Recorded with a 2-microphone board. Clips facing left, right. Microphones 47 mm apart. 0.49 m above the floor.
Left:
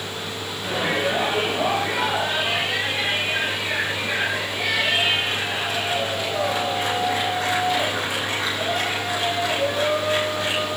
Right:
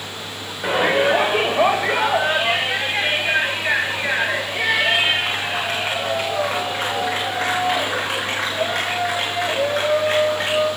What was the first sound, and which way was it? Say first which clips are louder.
A shout: right 6 dB; 50° right (ahead or behind).